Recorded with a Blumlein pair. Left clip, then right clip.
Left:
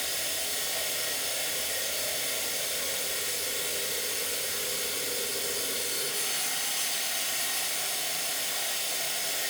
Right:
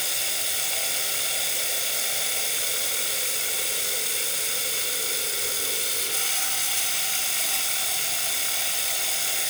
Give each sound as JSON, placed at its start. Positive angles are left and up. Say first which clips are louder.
{"t": 0.0, "sound": "running water", "louder": "right 4 dB", "azimuth_deg": -60, "distance_m": 4.5}